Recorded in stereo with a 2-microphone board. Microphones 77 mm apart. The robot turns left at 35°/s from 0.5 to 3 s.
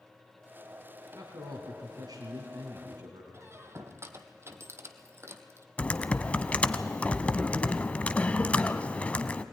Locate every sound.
1.1 s a man speaking: 50° right, 2.5 m; by 3.2 s 115° right, 2.5 m
3.3 s a squeak: 35° right (ahead or behind), 1.3 m
5.8 s typing on a keyboard: 15° left (ahead or behind), 0.7 m